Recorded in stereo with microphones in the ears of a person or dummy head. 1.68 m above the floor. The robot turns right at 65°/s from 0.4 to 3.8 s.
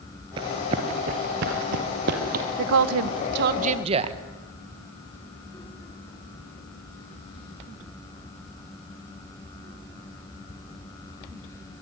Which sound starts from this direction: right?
Running footsteps, at 0.4 s.